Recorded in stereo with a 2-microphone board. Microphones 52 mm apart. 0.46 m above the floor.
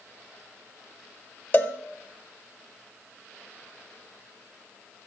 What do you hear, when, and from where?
1.5 s a cowbell: 35° left (ahead or behind), 1.0 m